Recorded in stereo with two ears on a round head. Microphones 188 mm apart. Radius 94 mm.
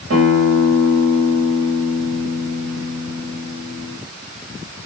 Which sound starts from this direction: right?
A guitar, at 0.1 s.